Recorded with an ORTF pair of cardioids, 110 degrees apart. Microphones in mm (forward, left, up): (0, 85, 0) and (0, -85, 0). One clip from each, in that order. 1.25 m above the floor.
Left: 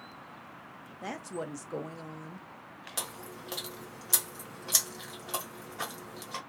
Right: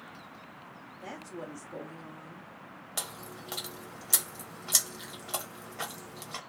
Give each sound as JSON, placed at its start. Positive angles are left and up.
{"t": 1.0, "sound": "a woman speaking", "azimuth_deg": 40, "distance_m": 0.9}
{"t": 3.0, "sound": "chewing", "azimuth_deg": 0, "distance_m": 1.2}